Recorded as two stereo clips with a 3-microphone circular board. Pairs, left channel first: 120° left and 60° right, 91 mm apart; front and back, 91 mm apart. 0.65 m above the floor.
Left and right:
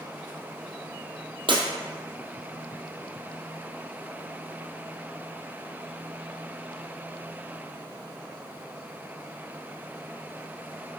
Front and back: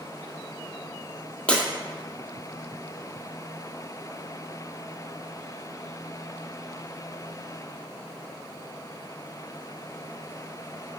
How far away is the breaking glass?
About 1.8 m.